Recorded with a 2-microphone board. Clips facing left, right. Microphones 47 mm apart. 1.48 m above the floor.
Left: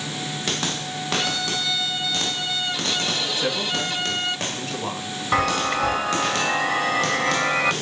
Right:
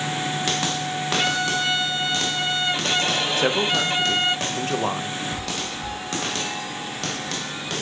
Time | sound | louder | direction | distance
1.2 | a violin | right 5 dB | 35° right (ahead or behind) | 0.9 m
3.4 | a man speaking | right 4 dB | 55° right (ahead or behind) | 1.9 m
5.3 | a chime | left 9 dB | 60° left (ahead or behind) | 0.6 m